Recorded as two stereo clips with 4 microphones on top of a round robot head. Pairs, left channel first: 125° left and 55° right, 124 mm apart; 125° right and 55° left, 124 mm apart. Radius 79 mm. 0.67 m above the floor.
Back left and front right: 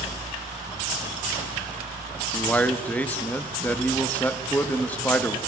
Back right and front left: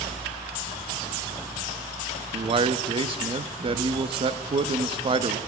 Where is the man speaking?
50° left, 0.6 m.